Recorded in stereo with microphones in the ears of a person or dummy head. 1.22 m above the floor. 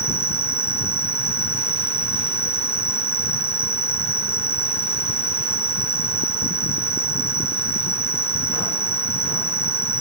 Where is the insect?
20° right (ahead or behind).